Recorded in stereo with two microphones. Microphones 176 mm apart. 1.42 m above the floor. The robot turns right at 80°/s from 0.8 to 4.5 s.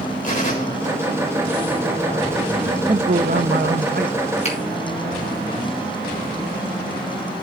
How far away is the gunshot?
About 4 m.